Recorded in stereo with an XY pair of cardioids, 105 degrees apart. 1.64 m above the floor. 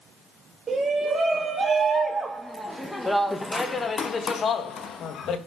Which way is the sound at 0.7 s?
30° right.